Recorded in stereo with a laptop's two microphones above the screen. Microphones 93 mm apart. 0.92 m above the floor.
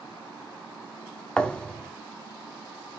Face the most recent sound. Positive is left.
turn(degrees=10)  # may be behind; listen again after turning